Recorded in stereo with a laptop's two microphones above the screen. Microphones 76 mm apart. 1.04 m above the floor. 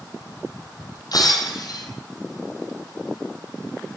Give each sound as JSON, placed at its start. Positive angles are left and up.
{"t": 1.1, "sound": "breaking glass", "side_deg": 60, "distance_m": 4.0}